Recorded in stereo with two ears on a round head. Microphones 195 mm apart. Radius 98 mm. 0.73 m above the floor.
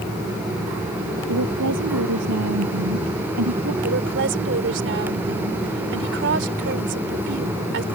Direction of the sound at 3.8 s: 60° right (ahead or behind).